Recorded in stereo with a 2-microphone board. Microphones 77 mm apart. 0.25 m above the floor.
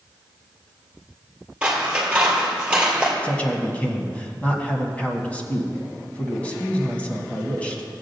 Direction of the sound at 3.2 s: 20° left (ahead or behind).